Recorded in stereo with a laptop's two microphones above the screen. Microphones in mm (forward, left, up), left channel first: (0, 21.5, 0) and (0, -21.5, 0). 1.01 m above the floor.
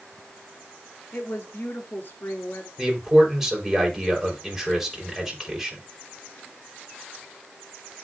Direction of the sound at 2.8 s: 10° right (ahead or behind).